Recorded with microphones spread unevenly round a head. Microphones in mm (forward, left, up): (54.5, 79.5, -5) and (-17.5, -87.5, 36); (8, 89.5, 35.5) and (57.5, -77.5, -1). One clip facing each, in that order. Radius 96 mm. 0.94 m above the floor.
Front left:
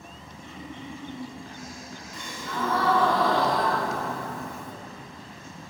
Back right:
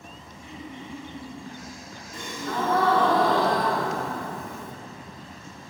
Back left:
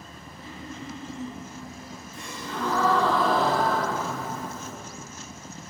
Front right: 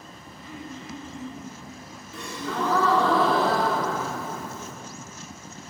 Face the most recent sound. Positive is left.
turn(degrees=-70)